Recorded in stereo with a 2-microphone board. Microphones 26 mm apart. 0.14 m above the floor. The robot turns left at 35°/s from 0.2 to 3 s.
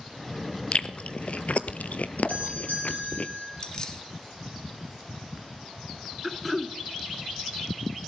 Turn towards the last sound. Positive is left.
turn(degrees=0)  # may be behind; listen again after turning